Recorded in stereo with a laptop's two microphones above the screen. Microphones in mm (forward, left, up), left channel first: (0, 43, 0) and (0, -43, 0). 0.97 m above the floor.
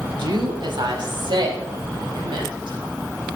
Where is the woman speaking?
60° right (ahead or behind), 1.7 m; by 2.9 s 70° right (ahead or behind), 6 m.